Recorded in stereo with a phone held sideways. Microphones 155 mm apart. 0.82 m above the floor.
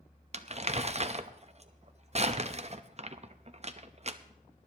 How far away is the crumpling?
About 0.6 m.